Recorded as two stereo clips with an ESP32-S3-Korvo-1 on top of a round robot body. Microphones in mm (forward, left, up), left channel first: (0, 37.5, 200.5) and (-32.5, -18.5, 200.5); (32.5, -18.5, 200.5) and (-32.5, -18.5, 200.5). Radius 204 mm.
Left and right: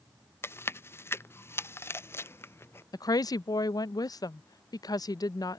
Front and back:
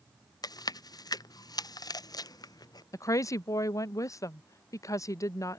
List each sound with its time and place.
0.4 s chewing: 10° left
2.9 s a woman speaking: 35° left